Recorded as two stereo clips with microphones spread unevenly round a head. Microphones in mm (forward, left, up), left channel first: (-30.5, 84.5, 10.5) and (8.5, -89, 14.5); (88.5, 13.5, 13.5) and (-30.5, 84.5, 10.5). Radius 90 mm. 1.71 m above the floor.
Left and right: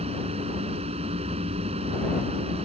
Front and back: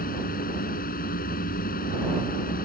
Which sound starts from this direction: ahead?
A fan, at 0.0 s.